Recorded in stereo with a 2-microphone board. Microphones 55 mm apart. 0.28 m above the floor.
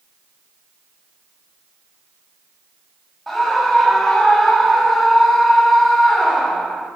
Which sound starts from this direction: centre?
A scream, at 3.3 s.